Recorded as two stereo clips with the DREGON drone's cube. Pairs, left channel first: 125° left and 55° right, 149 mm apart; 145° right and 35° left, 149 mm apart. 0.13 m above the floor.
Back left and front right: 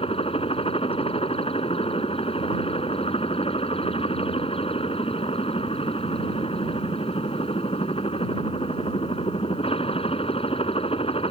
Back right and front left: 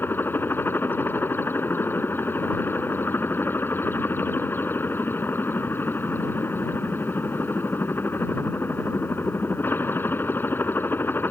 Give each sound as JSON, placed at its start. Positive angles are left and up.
{"t": 0.0, "sound": "a helicopter", "azimuth_deg": 145}